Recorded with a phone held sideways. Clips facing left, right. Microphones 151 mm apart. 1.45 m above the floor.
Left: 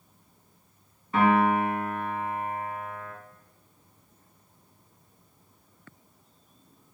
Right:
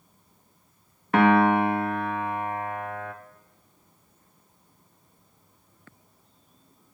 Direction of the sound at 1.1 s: 75° right (ahead or behind).